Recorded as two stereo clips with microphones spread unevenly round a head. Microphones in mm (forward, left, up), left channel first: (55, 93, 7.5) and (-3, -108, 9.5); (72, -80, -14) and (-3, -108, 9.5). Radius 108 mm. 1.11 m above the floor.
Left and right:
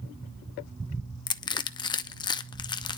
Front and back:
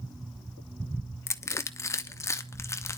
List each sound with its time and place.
1.3 s crushing: 10° left, 0.7 m